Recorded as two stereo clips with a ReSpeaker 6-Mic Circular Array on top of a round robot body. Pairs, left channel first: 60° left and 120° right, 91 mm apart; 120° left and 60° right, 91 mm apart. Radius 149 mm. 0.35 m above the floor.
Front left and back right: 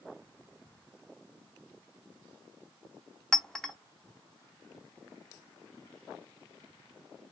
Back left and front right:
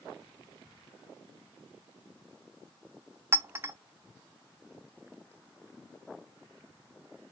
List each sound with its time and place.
3.3 s a clink: 20° right, 0.7 m